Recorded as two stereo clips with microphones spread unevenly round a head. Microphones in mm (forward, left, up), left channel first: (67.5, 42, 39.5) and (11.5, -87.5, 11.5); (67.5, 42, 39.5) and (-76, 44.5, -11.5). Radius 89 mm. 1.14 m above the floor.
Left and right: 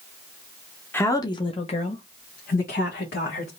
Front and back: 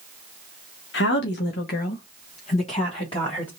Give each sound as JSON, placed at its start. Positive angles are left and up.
{"t": 0.9, "sound": "a woman speaking", "azimuth_deg": -15, "distance_m": 1.0}